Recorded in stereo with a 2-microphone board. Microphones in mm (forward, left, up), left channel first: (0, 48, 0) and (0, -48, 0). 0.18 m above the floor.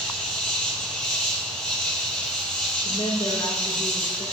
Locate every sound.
0.0 s an insect: 10° left (ahead or behind), 5 m
2.8 s a woman speaking: 80° left, 7 m